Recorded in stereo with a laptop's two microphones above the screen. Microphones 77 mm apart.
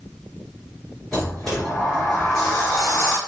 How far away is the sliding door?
About 1.3 m.